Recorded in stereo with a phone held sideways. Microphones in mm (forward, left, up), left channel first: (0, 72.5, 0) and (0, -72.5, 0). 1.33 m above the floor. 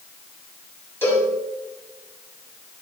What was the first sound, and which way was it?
A cowbell, 15° left (ahead or behind).